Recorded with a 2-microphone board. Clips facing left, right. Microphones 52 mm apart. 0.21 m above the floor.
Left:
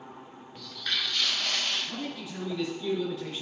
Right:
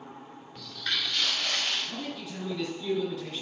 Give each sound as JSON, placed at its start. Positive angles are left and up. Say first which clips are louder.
{"t": 0.6, "sound": "footsteps", "louder": "even", "side_deg": 5, "distance_m": 2.5}
{"t": 1.9, "sound": "a man speaking", "louder": "even", "side_deg": 15, "distance_m": 2.5}